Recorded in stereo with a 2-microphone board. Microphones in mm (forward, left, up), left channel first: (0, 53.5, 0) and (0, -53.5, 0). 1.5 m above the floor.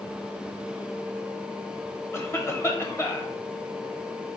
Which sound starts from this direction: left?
A cough, at 2.1 s.